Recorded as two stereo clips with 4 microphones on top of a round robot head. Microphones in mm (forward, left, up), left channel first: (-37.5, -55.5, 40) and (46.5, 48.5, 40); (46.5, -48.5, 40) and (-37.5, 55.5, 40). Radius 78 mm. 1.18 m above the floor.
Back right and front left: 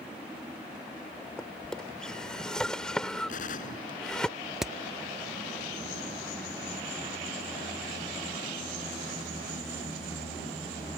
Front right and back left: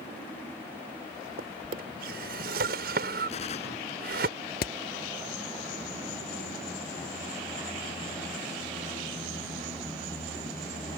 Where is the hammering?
35° right.